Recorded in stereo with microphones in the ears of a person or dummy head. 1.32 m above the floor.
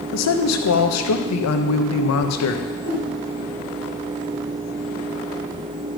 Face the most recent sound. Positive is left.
turn(degrees=-75)  # may be behind; listen again after turning